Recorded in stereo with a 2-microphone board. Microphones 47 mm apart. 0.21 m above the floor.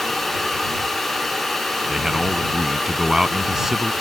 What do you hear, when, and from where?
1.9 s a man speaking: 10° right (ahead or behind)